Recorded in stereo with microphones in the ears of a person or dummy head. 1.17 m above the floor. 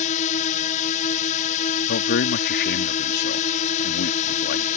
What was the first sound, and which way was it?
A drone, 35° left (ahead or behind).